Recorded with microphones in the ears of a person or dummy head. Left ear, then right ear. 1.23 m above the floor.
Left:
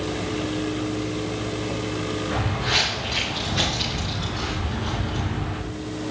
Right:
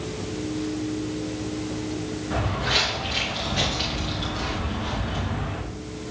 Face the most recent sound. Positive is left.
turn(degrees=-30)  # may be behind; listen again after turning